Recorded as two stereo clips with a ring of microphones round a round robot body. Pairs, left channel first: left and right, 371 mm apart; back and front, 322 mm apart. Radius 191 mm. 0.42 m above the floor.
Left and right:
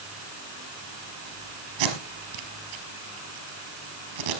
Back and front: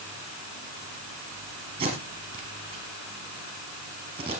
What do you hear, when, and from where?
1.8 s tape being pulled: 75° right, 4 m